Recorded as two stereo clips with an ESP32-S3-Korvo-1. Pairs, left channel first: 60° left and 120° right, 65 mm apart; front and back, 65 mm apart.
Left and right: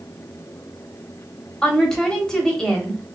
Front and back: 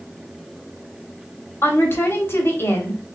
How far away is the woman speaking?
About 1.3 m.